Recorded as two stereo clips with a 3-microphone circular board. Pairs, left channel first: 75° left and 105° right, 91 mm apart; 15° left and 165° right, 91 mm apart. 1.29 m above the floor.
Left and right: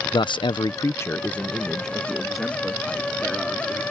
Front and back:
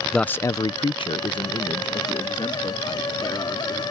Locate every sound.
0.1 s a man speaking: 100° left; by 3.8 s 20° right